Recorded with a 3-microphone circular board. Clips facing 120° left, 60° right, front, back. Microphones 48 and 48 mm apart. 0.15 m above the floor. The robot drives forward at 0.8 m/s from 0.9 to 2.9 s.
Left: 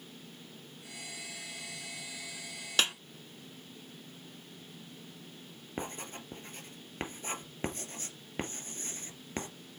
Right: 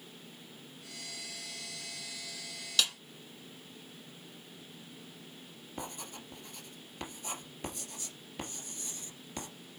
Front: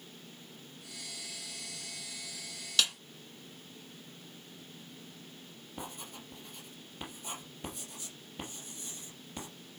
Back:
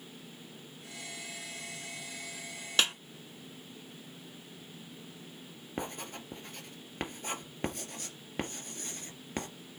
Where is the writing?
165° left, 1.9 m.